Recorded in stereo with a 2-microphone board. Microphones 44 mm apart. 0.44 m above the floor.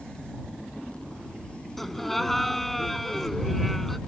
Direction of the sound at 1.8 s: 5° left (ahead or behind).